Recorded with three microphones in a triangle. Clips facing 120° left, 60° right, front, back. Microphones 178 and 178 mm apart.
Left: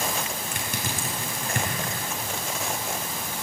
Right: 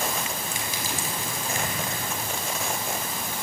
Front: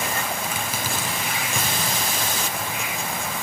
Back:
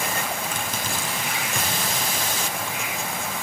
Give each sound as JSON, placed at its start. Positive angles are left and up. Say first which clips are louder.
{"t": 0.5, "sound": "crushing", "louder": "even, front 1 dB", "azimuth_deg": 85, "distance_m": 5.0}